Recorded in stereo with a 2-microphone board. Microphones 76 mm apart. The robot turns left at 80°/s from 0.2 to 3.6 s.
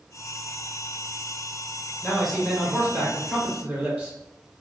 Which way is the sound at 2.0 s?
5° left (ahead or behind).